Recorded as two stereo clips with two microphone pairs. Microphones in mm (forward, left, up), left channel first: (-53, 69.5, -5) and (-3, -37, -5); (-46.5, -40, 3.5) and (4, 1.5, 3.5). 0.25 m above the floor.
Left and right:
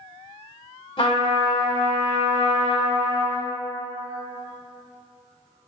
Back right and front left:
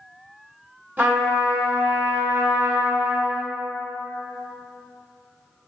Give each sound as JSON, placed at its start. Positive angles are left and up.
{"t": 1.0, "sound": "a trumpet", "azimuth_deg": 95, "distance_m": 0.9}